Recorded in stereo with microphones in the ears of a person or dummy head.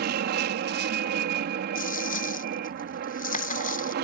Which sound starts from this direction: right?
An aircraft, at 0.0 s.